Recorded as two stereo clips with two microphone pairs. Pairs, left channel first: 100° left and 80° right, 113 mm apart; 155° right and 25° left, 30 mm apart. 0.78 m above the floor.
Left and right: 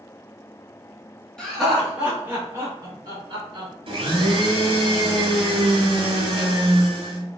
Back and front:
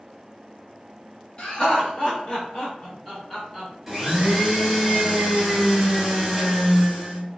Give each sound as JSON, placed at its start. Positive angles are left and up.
{"t": 1.4, "sound": "laughter", "azimuth_deg": -175, "distance_m": 1.2}
{"t": 3.9, "sound": "a blender", "azimuth_deg": -65, "distance_m": 1.0}